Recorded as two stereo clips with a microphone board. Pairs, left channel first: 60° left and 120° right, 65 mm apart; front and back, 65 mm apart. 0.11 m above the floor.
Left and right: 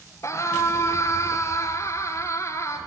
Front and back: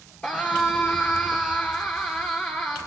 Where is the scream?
60° left, 1.9 m.